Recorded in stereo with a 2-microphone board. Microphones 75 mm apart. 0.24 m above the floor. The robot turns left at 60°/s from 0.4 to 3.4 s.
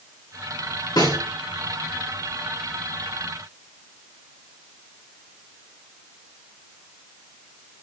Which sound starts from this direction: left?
A snare drum, at 1.0 s.